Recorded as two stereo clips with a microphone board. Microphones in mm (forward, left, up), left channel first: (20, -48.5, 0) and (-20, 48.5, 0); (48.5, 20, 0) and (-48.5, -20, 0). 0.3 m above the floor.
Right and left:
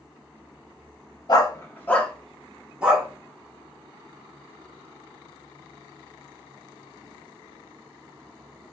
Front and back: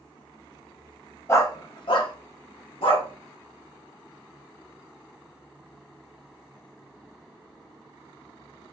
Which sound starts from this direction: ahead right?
A dog barking, at 1.3 s.